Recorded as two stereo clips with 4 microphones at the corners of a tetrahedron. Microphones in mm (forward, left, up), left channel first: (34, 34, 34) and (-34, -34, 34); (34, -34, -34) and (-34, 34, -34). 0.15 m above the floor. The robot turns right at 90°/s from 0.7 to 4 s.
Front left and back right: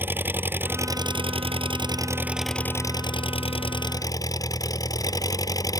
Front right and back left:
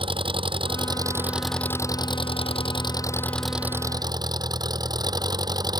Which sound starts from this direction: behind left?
An engine running, at 0.0 s.